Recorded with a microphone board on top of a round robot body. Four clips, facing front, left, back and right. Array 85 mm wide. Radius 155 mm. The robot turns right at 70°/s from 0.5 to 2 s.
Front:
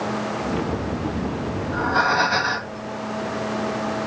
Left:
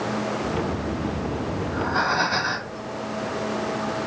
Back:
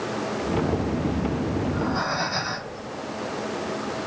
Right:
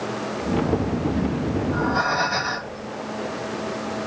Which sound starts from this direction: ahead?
Breathing, at 1.6 s.